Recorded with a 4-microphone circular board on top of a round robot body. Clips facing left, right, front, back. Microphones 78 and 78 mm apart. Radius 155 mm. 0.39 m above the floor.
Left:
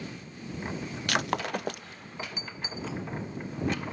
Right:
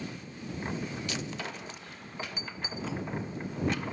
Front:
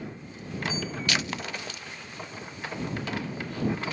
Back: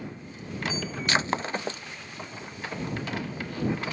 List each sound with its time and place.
1.1 s breaking glass: 120° left